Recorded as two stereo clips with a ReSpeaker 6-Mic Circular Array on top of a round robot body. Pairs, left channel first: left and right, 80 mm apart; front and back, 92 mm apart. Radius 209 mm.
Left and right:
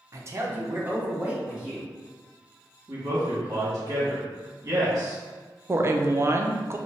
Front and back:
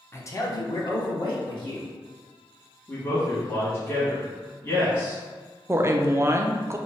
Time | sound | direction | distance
0.1 | a man speaking | 55° right | 0.8 m
2.9 | a man speaking | 45° right | 1.7 m
5.7 | a woman speaking | 130° right | 0.6 m